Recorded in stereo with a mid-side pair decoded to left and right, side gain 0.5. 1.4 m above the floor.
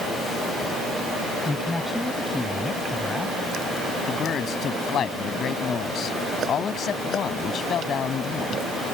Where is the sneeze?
No sneeze in this recording.